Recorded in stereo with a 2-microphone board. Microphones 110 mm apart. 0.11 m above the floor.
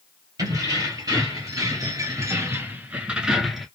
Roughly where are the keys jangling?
Right.